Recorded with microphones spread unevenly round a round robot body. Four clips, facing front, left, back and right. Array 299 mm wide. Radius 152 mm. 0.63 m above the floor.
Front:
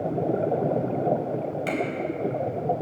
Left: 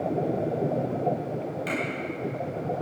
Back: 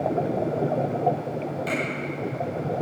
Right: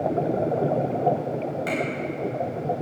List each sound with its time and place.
1.7 s a finger snap: straight ahead, 4 m